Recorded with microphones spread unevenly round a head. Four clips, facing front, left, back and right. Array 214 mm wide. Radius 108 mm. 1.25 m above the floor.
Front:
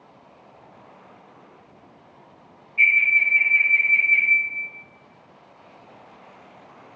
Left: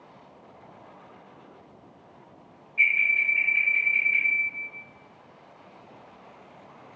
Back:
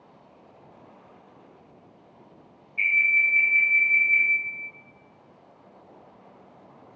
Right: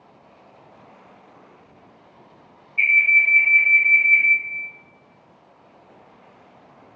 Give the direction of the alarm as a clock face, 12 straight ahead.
5 o'clock.